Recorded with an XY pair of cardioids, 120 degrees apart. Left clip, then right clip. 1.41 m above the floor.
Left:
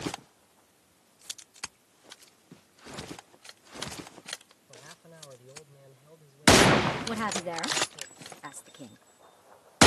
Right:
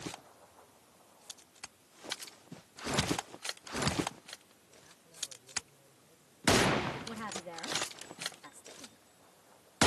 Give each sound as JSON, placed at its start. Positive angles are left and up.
{"t": 4.7, "sound": "a man speaking", "azimuth_deg": 65}
{"t": 7.1, "sound": "a woman speaking", "azimuth_deg": 60}